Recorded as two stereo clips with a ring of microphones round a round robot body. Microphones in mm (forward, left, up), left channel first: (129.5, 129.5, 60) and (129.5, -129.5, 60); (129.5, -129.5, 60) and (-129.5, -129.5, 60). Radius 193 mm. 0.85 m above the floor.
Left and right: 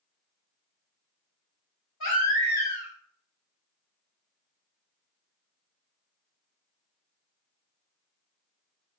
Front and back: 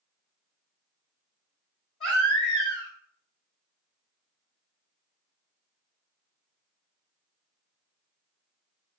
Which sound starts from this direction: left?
A baby crying, at 2.0 s.